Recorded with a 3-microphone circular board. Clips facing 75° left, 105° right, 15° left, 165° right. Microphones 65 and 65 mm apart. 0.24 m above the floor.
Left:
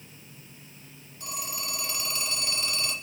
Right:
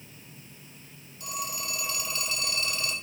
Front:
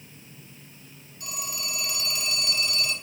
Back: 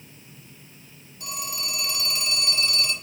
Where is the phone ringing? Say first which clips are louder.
Right 2 dB, back 2 dB; 130° left, 3 m.